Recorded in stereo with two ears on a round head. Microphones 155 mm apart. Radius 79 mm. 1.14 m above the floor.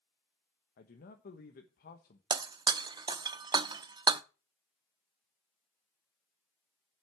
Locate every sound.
0.8 s a man speaking: 55° left (ahead or behind), 1.2 m
2.3 s breaking glass: 25° right (ahead or behind), 0.7 m